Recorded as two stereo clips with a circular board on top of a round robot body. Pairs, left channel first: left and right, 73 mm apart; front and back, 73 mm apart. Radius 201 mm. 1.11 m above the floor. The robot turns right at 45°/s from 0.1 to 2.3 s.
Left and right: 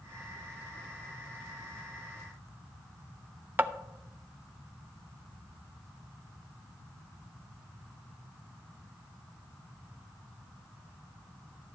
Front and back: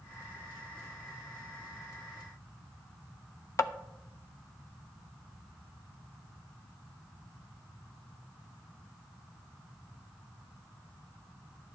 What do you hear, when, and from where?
3.6 s tapping: 35° right, 0.6 m